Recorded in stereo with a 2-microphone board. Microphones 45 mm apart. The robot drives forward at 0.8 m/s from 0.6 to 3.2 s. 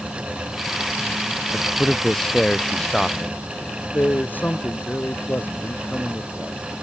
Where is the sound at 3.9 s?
40° left (ahead or behind).